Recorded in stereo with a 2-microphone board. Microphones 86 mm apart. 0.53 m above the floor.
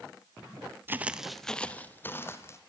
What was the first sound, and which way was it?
Footsteps, 25° right (ahead or behind).